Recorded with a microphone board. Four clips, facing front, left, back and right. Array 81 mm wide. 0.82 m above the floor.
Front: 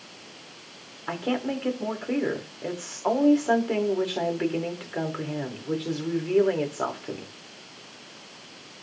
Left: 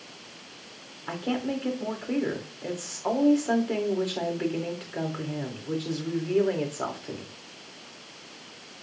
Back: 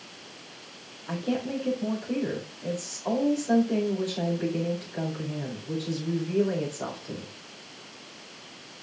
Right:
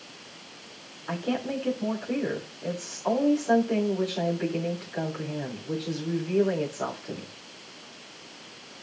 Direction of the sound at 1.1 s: 10° left.